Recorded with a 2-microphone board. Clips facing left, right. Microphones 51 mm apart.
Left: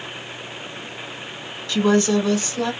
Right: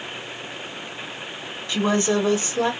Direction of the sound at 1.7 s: 25° right (ahead or behind).